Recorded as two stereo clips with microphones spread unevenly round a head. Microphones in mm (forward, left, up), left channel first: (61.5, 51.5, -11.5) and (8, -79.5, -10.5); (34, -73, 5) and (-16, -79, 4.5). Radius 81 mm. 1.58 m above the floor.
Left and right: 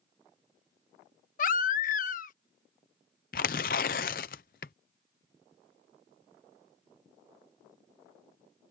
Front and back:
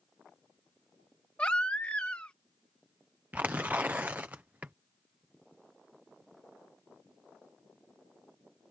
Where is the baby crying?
80° left.